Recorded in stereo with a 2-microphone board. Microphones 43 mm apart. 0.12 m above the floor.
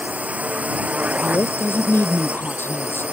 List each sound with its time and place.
0.0 s a drone: 35° right (ahead or behind); by 3.1 s 30° right (ahead or behind)
1.2 s a woman speaking: 60° left (ahead or behind)